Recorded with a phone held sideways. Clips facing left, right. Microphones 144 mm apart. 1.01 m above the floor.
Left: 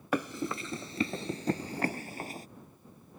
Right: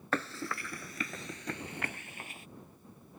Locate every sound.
0.1 s running footsteps: 15° left (ahead or behind); by 2.5 s 40° left (ahead or behind)